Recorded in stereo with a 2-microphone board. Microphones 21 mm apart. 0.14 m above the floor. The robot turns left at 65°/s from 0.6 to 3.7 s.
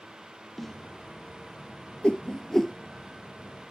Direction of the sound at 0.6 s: 10° left (ahead or behind).